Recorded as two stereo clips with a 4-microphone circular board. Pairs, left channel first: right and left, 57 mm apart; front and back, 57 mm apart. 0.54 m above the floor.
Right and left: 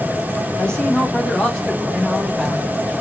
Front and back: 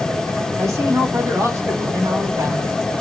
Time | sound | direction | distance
0.6 | a man speaking | 160° right | 3 m